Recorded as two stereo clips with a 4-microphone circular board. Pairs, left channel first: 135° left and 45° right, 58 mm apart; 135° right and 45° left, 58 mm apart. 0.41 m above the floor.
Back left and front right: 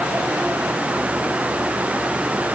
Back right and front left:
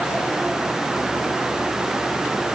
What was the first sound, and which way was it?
Only background noise.